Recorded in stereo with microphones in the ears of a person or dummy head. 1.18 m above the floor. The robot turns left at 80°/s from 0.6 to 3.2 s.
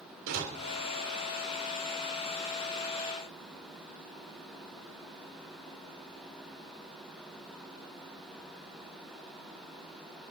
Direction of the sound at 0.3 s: 70° right (ahead or behind).